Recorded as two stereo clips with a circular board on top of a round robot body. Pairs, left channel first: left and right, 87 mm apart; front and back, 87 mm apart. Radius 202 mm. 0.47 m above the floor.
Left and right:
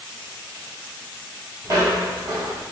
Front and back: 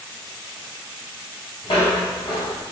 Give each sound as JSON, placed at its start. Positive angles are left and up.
{"t": 1.6, "sound": "footsteps", "azimuth_deg": -40, "distance_m": 1.1}